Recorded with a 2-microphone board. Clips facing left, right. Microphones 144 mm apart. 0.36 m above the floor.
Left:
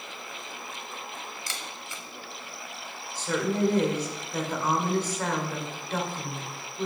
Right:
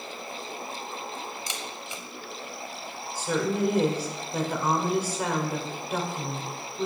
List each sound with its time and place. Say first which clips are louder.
1.5 s a camera shutter: right 3 dB; 20° right (ahead or behind), 0.7 m
3.1 s a woman speaking: even; 10° right (ahead or behind), 1.1 m